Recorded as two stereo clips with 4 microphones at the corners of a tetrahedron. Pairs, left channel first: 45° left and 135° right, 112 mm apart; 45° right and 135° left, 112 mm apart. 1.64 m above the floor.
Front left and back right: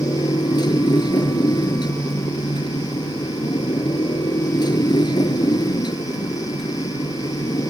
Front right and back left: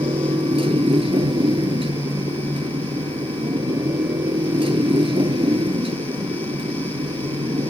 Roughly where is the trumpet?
No trumpet in this recording.